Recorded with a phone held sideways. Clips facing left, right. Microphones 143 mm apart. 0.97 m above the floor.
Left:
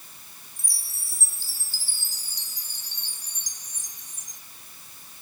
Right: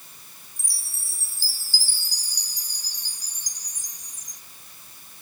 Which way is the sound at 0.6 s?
25° left (ahead or behind).